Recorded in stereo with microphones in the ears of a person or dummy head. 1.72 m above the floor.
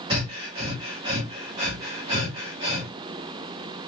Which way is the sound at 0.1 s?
35° right (ahead or behind).